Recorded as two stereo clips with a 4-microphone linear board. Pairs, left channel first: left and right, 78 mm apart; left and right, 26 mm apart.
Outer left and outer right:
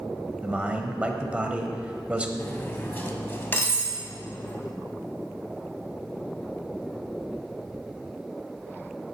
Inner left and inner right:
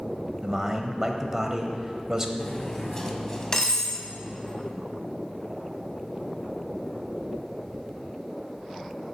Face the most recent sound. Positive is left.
turn(degrees=25)  # may be behind; listen again after turning